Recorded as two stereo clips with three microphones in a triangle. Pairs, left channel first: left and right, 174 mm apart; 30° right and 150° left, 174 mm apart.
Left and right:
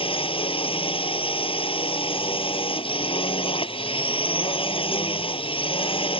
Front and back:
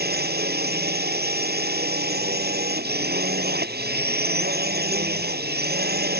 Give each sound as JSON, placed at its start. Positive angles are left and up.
{"t": 0.0, "sound": "a drone", "azimuth_deg": 145}